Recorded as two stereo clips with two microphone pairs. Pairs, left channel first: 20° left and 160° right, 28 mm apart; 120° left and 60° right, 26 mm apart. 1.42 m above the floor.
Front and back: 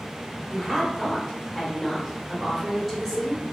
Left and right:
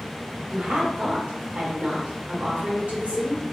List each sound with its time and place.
0.5 s a woman speaking: 80° right, 1.2 m